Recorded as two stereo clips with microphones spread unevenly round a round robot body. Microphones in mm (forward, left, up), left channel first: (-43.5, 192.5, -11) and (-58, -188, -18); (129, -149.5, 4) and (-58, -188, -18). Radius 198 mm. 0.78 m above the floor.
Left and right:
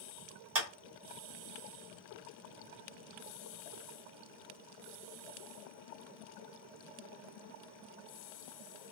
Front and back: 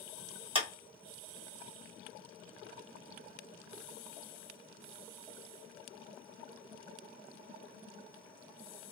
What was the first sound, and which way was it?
A clap, 110° right.